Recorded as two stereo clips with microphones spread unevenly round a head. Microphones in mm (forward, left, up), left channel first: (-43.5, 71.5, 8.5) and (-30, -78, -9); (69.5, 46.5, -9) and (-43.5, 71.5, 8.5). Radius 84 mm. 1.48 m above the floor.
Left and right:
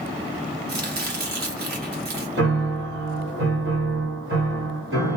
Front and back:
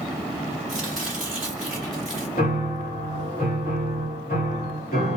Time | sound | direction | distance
0.7 | chopping | 100° right | 1.3 m
2.4 | a piano | 60° right | 1.7 m